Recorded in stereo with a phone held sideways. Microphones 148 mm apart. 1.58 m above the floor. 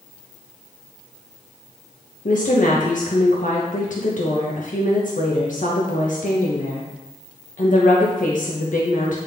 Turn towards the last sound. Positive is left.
turn(degrees=60)  # may be behind; listen again after turning